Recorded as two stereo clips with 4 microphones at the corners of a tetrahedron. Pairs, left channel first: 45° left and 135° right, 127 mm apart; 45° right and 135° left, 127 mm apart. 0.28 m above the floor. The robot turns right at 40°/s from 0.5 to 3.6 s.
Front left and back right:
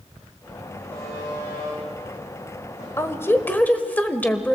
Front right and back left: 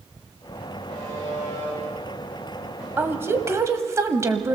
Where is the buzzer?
25° right, 8.5 m; by 2.9 s 55° left, 8.5 m.